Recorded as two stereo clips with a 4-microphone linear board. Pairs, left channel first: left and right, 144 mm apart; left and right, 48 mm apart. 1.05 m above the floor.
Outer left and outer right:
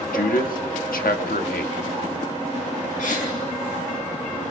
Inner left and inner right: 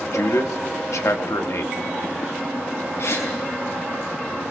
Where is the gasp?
70° left (ahead or behind), 5.5 m.